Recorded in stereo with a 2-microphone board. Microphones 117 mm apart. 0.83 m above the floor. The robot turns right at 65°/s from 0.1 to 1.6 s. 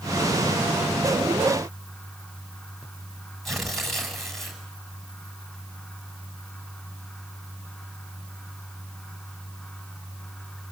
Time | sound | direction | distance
3.5 | tearing paper | centre (ahead or behind) | 7 m